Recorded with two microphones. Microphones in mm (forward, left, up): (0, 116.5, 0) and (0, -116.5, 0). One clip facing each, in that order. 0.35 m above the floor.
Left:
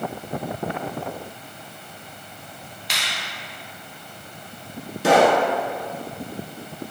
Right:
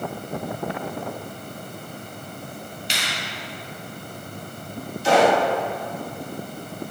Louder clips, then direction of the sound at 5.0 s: Left 1 dB; 85° left.